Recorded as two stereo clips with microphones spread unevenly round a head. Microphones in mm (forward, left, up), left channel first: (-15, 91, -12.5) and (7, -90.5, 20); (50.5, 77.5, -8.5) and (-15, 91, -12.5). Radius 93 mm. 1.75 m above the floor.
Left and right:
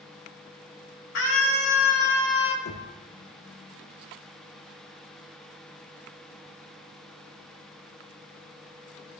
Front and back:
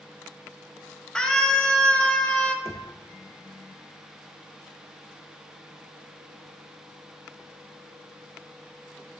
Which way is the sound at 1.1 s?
65° left.